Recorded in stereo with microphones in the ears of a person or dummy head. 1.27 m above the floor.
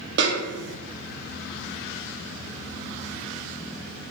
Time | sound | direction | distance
0.2 | a snare drum | 50° right (ahead or behind) | 0.6 m